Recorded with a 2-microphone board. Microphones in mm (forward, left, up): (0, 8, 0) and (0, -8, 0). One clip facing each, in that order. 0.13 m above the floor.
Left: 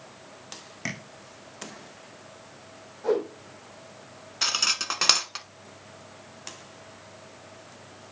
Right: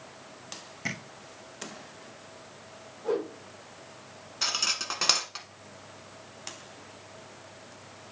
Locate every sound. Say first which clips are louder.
0.8 s tapping: even; 25° left (ahead or behind), 3 m
3.0 s a whoosh: left 4 dB; 65° left (ahead or behind), 4 m
4.4 s cutlery clinking: left 3 dB; 20° left (ahead or behind), 0.6 m